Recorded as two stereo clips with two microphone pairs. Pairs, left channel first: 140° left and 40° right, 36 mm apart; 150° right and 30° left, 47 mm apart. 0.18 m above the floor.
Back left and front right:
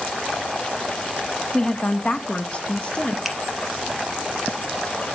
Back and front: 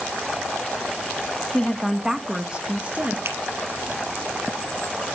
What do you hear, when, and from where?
1.5 s a woman speaking: 150° left, 1.1 m; by 3.1 s 80° left, 2.0 m
3.2 s a finger snap: 50° left, 3.5 m